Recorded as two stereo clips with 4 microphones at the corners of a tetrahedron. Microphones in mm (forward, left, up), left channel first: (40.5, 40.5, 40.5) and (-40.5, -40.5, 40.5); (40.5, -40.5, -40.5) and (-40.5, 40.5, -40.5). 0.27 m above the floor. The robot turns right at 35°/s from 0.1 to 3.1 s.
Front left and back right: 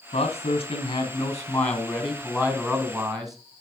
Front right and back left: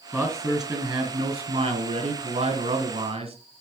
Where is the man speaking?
65° left, 2.5 m; by 3.4 s 170° left, 2.5 m.